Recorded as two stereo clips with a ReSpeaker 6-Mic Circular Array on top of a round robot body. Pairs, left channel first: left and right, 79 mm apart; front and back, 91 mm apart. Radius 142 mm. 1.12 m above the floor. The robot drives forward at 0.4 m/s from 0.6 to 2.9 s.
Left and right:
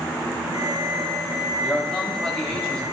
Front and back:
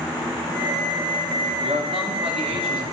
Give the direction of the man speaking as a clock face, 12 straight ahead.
6 o'clock.